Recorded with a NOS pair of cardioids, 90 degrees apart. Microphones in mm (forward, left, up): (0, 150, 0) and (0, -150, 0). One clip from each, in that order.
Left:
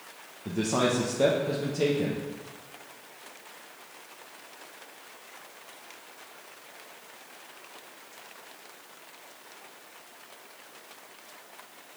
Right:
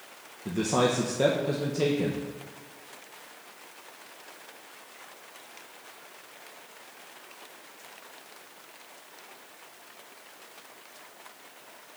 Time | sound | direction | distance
0.5 | a man speaking | 5° right | 0.8 m